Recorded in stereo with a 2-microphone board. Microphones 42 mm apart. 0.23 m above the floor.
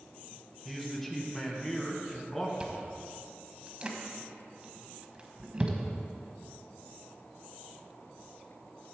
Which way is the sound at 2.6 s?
25° right (ahead or behind).